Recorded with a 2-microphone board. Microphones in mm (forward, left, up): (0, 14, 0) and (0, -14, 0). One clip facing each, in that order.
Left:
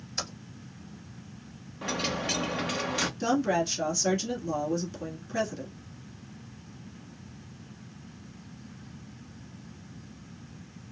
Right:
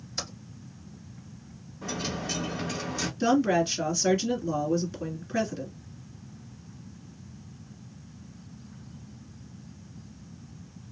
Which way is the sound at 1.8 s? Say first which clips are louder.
Left 3 dB; 60° left (ahead or behind).